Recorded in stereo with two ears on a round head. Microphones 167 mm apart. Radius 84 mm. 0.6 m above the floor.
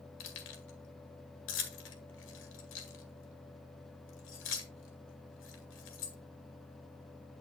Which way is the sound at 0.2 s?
75° left (ahead or behind).